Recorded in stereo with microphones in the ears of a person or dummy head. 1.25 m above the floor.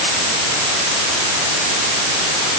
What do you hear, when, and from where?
Only background noise.